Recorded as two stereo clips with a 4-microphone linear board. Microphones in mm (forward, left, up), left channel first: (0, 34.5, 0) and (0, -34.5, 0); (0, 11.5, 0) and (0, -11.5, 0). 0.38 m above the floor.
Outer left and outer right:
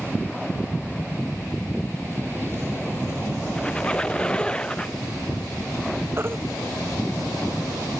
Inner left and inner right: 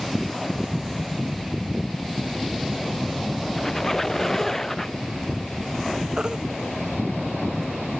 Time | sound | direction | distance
3.6 | a squeak | 15° left (ahead or behind) | ?
6.2 | a baby crying | 35° right (ahead or behind) | ?